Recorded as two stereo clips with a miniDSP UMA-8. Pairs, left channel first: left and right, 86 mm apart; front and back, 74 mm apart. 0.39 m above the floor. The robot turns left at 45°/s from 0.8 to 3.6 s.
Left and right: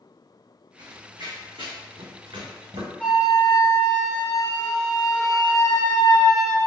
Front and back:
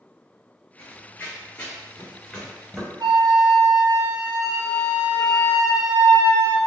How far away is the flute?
About 0.9 m.